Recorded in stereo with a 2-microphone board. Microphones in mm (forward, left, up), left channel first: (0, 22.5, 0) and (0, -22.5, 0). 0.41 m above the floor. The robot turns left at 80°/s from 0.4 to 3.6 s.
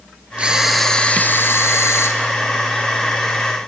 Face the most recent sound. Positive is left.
turn(degrees=-50)